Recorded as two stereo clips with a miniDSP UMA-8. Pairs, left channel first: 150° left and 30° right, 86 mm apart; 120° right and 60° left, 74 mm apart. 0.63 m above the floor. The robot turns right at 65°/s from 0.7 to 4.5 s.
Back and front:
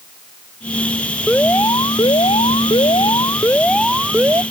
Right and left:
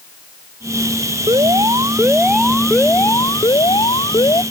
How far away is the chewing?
No chewing in this recording.